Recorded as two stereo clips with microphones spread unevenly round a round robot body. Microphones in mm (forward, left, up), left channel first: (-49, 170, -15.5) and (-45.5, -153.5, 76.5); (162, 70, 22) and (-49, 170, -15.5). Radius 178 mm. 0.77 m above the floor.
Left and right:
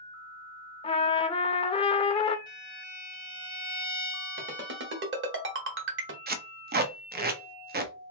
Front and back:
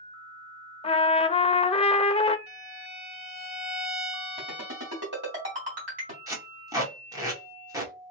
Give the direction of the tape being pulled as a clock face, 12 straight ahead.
5 o'clock.